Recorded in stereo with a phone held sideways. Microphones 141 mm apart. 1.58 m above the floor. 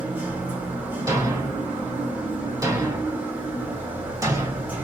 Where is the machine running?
15° right (ahead or behind), 1.3 m.